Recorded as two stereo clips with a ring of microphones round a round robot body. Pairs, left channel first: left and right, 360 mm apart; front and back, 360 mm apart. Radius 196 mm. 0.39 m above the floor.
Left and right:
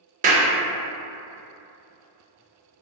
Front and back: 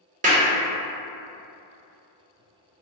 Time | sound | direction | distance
0.2 | a clap | 135° right | 0.6 m